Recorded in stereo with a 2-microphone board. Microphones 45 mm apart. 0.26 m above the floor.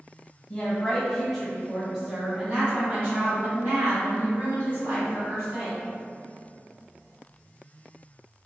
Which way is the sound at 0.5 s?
25° left (ahead or behind).